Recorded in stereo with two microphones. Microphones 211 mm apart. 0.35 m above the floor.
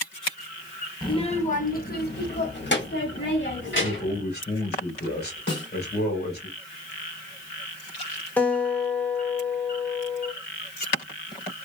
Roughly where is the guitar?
Centre.